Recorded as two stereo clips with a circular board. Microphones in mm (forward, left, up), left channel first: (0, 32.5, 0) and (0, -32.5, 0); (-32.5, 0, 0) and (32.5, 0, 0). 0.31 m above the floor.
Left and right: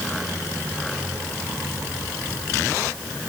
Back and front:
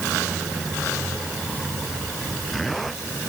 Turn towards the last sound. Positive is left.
No sound to turn to.